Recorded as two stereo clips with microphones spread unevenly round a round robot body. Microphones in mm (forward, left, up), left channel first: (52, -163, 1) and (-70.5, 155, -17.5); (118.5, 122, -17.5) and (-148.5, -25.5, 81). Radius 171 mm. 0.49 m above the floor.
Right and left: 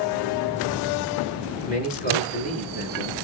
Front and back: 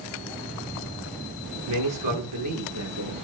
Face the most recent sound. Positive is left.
turn(degrees=-135)